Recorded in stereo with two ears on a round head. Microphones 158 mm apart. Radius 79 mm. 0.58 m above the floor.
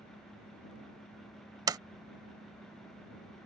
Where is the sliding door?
20° right (ahead or behind).